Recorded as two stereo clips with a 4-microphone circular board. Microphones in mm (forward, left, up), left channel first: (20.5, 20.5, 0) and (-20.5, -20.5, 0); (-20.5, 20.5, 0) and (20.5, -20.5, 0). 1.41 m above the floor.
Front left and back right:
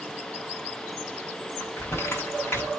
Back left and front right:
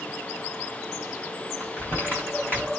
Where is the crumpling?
85° left, 5 m.